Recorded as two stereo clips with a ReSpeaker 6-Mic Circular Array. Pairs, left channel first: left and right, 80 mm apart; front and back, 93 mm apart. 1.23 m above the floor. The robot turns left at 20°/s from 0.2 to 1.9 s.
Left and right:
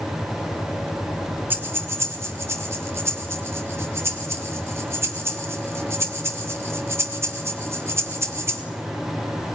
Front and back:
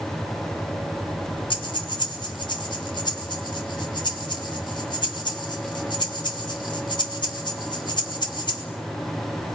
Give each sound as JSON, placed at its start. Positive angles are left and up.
{"t": 1.5, "sound": "breathing", "azimuth_deg": -25, "distance_m": 2.5}